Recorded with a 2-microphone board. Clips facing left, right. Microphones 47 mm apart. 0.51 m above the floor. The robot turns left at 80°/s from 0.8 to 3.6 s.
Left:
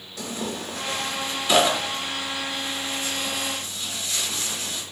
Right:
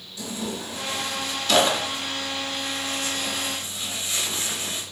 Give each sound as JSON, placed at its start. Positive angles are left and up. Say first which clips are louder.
{"t": 0.2, "sound": "tearing paper", "louder": "left 1 dB", "side_deg": 60, "distance_m": 0.6}